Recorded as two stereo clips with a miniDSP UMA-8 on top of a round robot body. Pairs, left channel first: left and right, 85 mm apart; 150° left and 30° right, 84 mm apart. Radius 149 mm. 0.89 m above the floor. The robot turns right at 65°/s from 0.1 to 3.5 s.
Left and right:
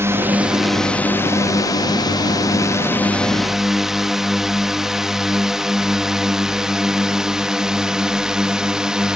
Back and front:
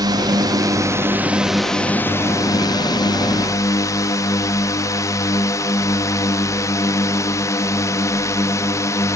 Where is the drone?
40° right; by 9.2 s 170° right.